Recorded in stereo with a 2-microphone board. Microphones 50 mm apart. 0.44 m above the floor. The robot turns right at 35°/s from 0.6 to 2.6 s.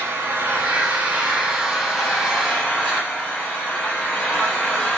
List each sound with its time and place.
0.0 s an engine running: 45° right, 7 m; by 5.0 s 25° left, 7 m